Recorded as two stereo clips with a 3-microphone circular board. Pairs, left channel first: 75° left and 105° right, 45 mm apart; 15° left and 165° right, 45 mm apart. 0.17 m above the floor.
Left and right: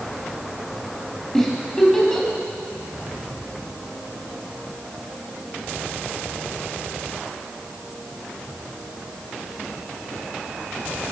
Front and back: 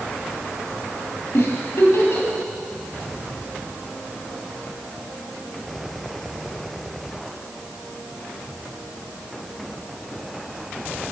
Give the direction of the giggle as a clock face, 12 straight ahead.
12 o'clock.